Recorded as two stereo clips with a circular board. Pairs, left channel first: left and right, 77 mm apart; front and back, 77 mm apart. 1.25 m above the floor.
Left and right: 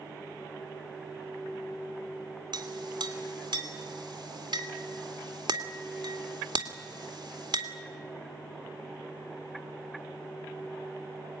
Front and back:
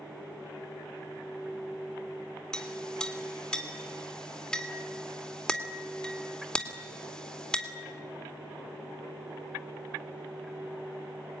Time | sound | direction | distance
2.5 | a clink | 80° right | 2.5 m